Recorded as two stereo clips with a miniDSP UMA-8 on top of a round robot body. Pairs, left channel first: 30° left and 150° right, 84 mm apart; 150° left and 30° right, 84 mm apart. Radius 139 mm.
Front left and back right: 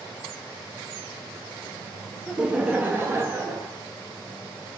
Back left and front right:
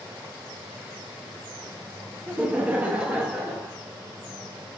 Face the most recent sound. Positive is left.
turn(degrees=-105)